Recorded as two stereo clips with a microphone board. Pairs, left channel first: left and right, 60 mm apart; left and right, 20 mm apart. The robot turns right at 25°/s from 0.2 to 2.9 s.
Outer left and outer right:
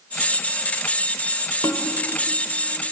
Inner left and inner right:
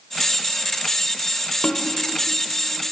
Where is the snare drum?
80° left, 2.5 m; by 1.8 s 75° left (ahead or behind), 2.5 m.